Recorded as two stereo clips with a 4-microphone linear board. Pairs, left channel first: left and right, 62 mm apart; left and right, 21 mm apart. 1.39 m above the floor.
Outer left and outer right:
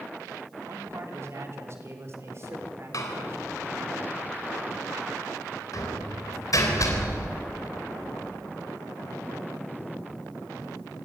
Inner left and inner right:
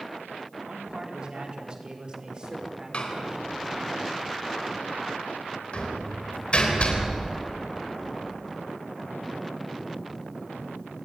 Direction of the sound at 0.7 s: 50° right (ahead or behind).